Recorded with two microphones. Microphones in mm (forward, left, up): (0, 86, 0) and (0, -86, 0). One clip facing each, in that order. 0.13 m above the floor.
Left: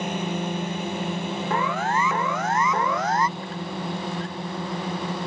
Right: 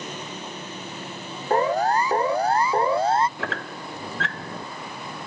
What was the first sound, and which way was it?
A drone, 65° left (ahead or behind).